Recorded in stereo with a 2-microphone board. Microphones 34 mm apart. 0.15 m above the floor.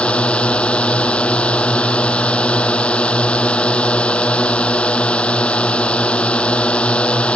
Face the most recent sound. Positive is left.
turn(degrees=35)  # may be behind; listen again after turning